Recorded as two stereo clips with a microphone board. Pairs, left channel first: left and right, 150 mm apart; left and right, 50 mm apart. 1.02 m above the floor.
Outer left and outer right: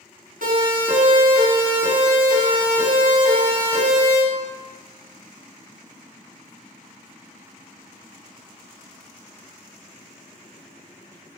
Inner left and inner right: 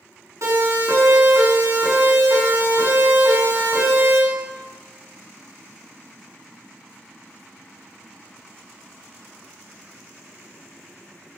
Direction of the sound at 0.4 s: 75° right (ahead or behind).